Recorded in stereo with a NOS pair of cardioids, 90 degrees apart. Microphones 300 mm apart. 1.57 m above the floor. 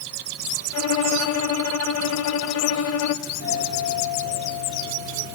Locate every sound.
0.7 s a violin: 55° left, 1.0 m
3.2 s a doorbell: 55° left, 6.5 m